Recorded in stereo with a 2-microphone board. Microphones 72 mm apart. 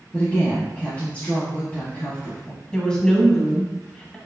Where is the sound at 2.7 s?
10° left (ahead or behind), 1.4 m.